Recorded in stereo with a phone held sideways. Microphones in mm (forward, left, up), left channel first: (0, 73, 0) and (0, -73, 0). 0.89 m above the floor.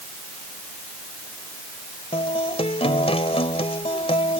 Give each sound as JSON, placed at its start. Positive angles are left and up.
{"t": 2.1, "sound": "a guitar", "side_deg": 45}